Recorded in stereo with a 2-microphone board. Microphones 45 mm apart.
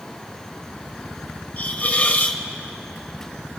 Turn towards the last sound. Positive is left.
turn(degrees=35)  # may be behind; listen again after turning